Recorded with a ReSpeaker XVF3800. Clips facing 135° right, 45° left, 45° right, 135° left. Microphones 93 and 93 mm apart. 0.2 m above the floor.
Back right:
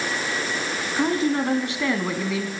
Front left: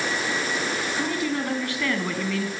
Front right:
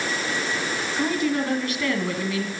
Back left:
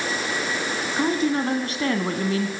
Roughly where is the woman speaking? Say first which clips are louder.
Back right 8 dB, back left 2 dB; behind.